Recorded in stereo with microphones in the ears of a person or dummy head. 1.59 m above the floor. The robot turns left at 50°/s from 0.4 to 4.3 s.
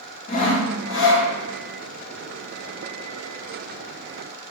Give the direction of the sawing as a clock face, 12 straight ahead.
7 o'clock.